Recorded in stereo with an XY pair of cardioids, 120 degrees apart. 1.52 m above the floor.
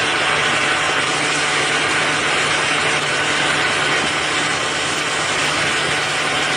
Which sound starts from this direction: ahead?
A fan, at 0.0 s.